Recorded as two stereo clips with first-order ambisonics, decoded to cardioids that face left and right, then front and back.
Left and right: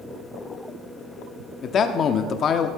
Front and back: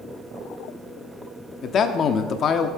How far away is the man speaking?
About 0.8 m.